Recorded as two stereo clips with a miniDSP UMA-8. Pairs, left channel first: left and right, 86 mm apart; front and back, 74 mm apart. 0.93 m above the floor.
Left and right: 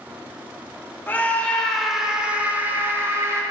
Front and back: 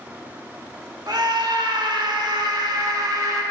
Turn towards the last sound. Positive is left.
turn(degrees=-145)